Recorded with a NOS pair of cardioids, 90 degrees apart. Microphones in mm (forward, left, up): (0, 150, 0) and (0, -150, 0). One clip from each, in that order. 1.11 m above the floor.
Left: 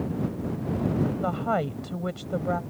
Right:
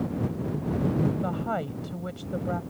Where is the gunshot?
I don't hear a gunshot.